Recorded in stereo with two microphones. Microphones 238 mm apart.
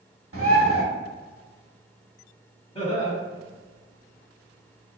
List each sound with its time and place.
0.3 s a bird: 65° right (ahead or behind), 0.7 m
2.8 s laughter: 25° left (ahead or behind), 1.4 m